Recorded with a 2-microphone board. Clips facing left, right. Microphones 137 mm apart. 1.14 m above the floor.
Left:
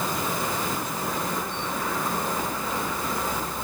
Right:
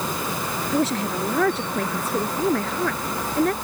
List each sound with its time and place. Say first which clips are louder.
0.7 s a woman speaking: right 7 dB; 90° right